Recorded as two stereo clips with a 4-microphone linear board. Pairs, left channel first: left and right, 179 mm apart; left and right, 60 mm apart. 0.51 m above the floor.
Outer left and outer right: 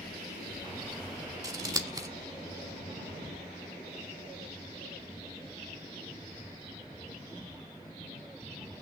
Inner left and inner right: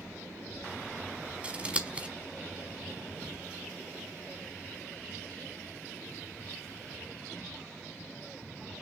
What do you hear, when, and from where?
1.4 s scissors: 25° right (ahead or behind), 1.4 m